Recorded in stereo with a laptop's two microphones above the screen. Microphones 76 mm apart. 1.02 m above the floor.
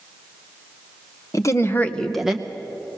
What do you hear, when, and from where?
1.3 s a woman speaking: 45° left (ahead or behind), 1.0 m; by 2.5 s 20° right (ahead or behind), 0.8 m